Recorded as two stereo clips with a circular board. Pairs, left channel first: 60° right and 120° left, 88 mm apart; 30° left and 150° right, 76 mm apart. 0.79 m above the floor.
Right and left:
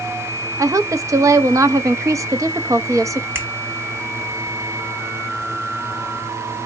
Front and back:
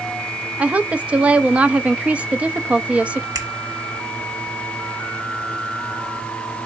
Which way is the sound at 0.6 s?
145° left.